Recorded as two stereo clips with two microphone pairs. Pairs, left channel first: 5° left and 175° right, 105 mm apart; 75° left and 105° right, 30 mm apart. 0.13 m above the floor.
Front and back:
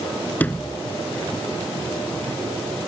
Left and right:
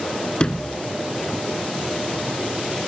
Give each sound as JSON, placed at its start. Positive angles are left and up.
{"t": 0.4, "sound": "a sliding door", "azimuth_deg": 65}